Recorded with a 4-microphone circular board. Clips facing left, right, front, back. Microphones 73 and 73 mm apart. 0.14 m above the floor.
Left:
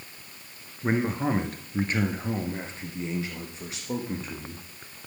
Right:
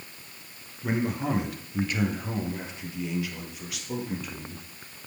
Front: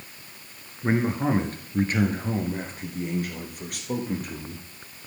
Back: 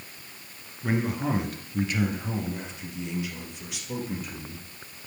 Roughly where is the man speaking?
Ahead left.